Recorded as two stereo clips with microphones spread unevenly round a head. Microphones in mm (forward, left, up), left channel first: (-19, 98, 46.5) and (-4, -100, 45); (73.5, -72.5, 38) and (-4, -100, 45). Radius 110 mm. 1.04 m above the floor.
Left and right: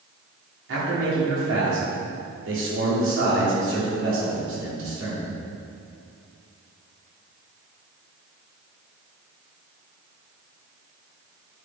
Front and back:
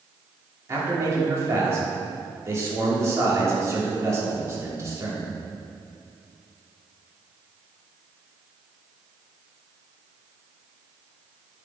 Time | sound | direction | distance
0.7 | a man speaking | 105° right | 3 m